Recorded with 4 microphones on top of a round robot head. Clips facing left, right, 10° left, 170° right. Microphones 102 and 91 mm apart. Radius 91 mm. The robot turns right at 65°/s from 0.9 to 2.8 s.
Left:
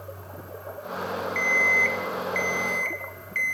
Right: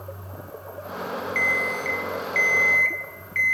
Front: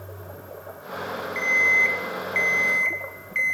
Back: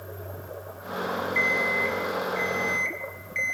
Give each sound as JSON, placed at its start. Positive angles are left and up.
{"t": 1.4, "sound": "an alarm clock", "azimuth_deg": -55, "distance_m": 1.4}